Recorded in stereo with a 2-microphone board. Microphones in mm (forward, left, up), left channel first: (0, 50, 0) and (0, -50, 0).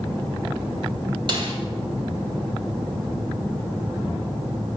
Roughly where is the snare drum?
Right.